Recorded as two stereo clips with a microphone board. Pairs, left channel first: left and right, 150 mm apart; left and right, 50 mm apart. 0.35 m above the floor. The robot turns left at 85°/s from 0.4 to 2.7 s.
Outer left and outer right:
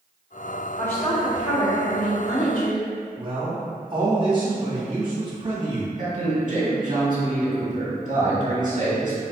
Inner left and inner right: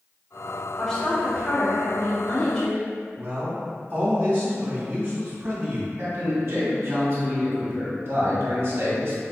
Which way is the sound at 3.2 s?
35° right (ahead or behind).